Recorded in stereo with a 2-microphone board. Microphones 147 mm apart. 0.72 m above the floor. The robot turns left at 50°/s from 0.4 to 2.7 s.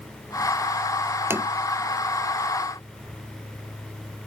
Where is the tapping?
15° right (ahead or behind); by 1.5 s 5° right (ahead or behind).